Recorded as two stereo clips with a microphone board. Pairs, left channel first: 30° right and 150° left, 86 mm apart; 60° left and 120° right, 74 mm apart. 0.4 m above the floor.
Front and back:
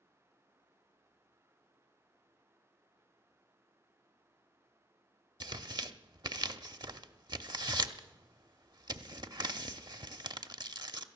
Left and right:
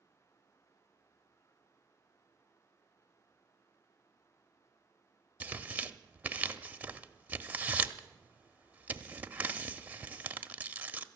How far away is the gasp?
I don't hear a gasp.